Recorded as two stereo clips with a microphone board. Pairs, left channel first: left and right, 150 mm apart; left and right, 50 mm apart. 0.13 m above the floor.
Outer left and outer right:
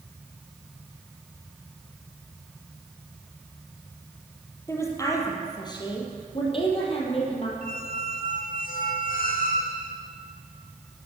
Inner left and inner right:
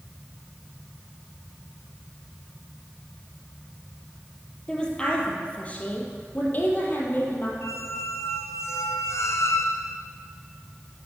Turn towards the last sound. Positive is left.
turn(degrees=70)  # may be behind; listen again after turning